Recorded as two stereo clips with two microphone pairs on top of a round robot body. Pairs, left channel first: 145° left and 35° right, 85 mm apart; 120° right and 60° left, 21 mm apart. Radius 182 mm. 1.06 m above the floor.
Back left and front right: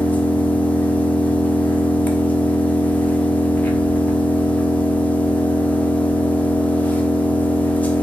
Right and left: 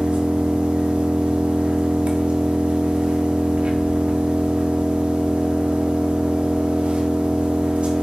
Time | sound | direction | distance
0.0 | an engine running | 70° left | 1.4 m